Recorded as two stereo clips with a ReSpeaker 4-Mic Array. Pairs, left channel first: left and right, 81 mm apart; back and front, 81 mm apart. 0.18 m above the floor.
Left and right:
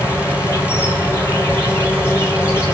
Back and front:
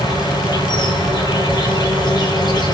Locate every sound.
0.0 s an insect: 150° left, 9 m